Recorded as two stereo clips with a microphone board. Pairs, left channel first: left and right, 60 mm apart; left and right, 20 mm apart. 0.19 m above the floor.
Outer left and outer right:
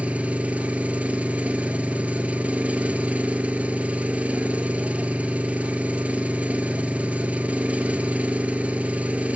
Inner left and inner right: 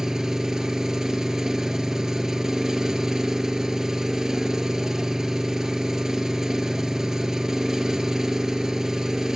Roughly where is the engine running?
Right.